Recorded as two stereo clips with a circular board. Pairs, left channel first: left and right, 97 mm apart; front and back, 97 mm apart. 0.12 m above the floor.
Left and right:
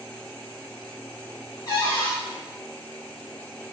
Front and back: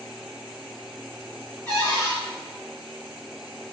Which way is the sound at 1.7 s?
140° left.